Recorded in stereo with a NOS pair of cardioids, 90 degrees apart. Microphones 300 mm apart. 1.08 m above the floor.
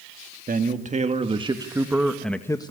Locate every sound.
0.5 s a man speaking: 30° right, 2.5 m; by 2.7 s 20° left, 1.4 m